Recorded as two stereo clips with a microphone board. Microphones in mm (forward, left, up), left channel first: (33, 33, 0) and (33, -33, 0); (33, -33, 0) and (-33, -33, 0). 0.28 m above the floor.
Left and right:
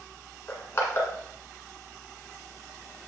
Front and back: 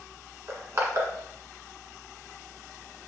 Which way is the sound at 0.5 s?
140° left.